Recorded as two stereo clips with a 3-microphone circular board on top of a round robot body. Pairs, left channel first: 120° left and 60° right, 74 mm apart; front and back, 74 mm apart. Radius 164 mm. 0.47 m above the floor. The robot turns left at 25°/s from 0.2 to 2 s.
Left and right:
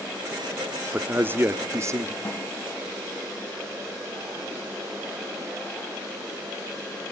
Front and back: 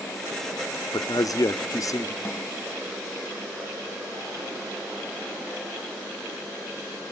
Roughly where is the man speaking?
Ahead.